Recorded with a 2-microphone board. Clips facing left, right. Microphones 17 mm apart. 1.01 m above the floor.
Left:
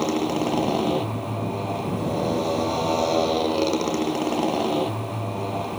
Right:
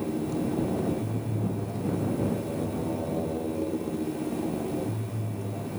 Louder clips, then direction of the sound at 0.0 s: Left 6 dB; 85° left.